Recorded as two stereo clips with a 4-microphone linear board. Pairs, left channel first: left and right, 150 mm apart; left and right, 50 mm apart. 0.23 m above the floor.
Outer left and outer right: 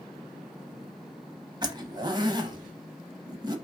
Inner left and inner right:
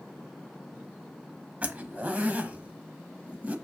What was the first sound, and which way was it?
A zipper, 30° right (ahead or behind).